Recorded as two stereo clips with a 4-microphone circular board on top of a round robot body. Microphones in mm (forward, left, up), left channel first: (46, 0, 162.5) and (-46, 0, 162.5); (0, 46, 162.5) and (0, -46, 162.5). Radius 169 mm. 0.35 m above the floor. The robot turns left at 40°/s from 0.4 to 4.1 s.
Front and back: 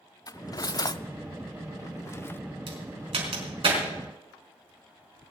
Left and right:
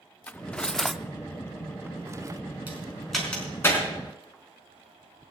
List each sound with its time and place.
0.3 s cutlery clinking: 20° left, 0.7 m; by 2.4 s 60° right, 0.7 m
2.7 s a crack: 165° right, 4 m; by 3.8 s 150° left, 4 m